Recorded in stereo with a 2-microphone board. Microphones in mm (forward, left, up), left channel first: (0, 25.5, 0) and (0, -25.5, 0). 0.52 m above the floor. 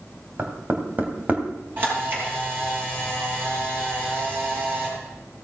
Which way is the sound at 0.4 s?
35° right (ahead or behind).